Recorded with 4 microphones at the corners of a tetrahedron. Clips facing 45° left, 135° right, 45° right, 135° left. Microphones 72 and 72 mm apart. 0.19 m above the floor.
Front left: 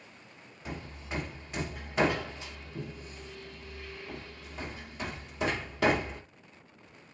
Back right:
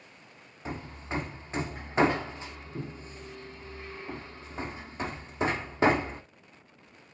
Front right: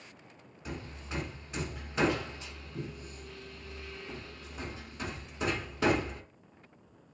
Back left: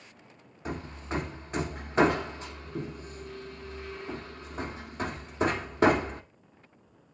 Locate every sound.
0.7 s hammering: 175° left, 0.5 m